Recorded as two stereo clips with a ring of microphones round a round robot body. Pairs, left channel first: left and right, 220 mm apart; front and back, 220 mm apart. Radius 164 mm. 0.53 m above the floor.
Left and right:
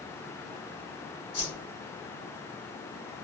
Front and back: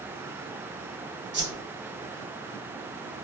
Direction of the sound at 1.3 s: 155° left.